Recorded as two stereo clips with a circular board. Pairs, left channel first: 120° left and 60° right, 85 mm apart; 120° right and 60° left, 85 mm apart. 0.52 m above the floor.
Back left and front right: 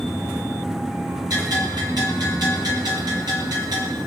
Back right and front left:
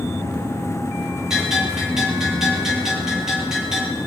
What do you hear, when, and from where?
1.3 s a bell: 25° right, 8 m